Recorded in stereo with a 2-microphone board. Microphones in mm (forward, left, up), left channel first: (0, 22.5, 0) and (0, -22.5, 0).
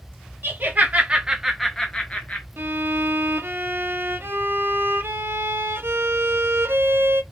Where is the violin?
55° right (ahead or behind), 0.5 m.